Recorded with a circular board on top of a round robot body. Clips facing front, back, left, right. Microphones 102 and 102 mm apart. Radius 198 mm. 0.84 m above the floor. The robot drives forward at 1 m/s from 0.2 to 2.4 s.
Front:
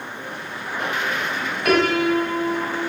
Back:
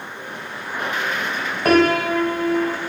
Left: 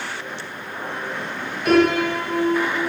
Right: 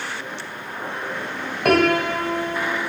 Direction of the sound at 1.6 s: 125° right.